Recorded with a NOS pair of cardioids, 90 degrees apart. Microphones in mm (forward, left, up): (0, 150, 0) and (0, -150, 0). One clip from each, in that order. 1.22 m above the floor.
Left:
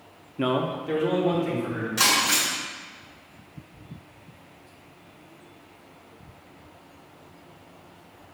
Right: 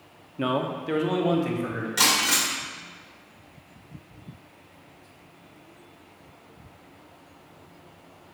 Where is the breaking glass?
35° right, 2.0 m.